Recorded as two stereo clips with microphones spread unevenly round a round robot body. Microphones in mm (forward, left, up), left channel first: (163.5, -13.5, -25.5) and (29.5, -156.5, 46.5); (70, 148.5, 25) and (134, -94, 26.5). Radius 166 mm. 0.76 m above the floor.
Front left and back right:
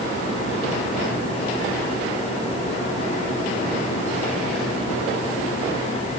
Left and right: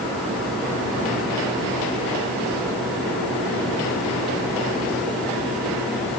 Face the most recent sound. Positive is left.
No sound to turn to.